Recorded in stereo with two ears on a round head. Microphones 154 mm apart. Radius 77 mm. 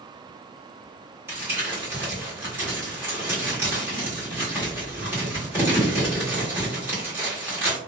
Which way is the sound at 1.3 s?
15° right (ahead or behind).